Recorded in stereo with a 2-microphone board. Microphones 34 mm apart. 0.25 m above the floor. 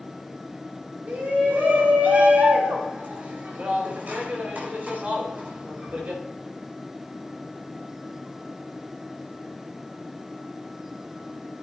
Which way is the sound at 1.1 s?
60° right (ahead or behind).